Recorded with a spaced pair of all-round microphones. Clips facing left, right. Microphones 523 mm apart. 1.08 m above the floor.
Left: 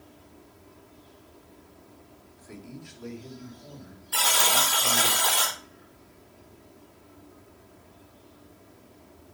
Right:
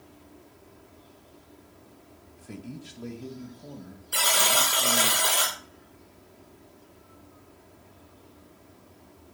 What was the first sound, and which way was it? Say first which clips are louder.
A man speaking: right 3 dB; 50° right (ahead or behind).